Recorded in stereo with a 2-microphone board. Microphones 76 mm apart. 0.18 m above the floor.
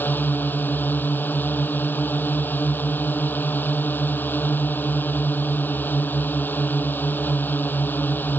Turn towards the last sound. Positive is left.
turn(degrees=25)  # may be behind; listen again after turning